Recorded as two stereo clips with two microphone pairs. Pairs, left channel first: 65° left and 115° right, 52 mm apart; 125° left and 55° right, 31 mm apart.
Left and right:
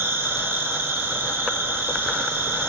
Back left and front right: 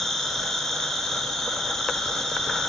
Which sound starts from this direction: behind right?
An insect, at 0.0 s.